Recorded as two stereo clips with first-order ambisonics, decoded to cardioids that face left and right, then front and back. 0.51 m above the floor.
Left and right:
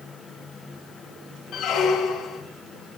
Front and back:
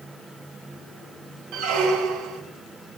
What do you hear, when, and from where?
1.5 s a squeak: 145° left, 0.6 m